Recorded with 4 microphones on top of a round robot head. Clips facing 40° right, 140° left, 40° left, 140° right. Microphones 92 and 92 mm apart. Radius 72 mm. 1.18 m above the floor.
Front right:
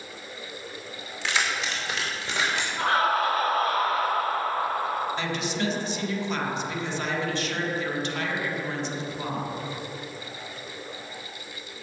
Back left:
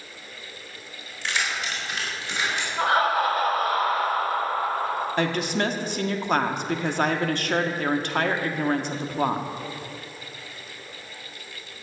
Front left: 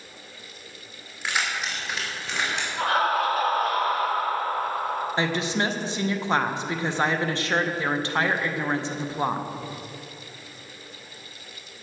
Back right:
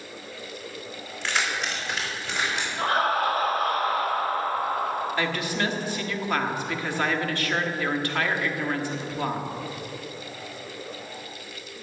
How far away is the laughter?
About 4 m.